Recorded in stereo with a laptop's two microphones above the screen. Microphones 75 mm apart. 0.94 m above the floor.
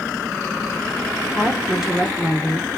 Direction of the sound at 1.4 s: 5° right (ahead or behind).